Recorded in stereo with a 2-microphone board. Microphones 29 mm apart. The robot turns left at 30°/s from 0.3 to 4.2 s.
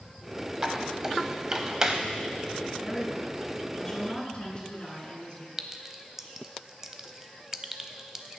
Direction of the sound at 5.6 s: 20° right (ahead or behind).